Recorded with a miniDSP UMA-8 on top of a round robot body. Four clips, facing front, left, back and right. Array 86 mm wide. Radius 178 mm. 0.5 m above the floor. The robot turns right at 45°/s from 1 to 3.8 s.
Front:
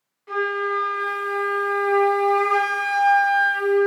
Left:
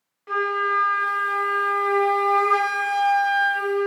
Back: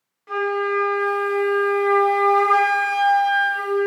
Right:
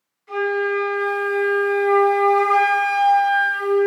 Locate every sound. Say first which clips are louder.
0.3 s a flute: right 2 dB, back 2 dB; 105° left, 0.8 m; by 3.9 s 130° right, 0.8 m